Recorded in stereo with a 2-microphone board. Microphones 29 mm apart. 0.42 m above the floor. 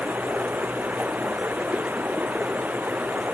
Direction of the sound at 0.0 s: 85° right.